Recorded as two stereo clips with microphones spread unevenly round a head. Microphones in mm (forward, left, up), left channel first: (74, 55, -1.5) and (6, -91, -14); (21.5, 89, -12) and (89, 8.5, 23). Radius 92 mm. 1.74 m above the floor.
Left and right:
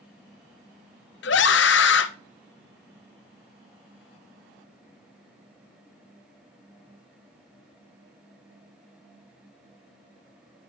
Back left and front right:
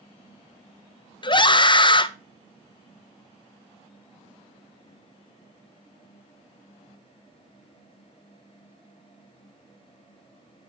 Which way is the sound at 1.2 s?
80° left.